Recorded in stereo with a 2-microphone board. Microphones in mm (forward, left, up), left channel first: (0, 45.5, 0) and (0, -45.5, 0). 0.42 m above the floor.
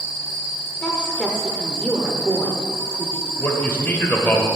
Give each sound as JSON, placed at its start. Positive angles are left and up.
{"t": 0.8, "sound": "a woman speaking", "side_deg": 10, "distance_m": 0.9}
{"t": 3.4, "sound": "a man speaking", "side_deg": 20, "distance_m": 1.4}